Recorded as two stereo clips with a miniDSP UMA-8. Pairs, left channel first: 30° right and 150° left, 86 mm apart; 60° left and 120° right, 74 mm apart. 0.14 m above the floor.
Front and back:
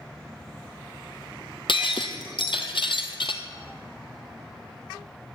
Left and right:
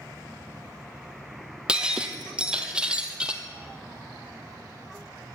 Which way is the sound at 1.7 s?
40° right.